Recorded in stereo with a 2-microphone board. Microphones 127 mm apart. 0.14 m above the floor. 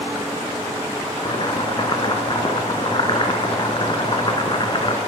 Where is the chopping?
40° left (ahead or behind), 1.0 m.